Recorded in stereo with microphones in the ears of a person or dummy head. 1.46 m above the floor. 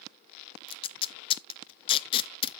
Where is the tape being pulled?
30° left (ahead or behind), 0.6 m.